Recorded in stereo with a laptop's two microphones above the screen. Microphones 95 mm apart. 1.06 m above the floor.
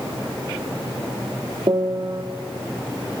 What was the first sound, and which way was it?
A piano, 50° right (ahead or behind).